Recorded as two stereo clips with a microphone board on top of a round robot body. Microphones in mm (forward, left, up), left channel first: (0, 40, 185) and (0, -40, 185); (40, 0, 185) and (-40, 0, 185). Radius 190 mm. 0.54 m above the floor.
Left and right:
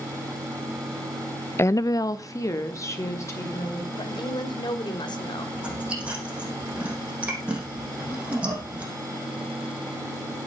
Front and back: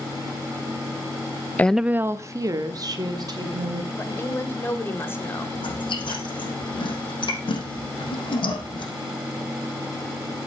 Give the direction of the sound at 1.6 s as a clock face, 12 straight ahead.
10 o'clock.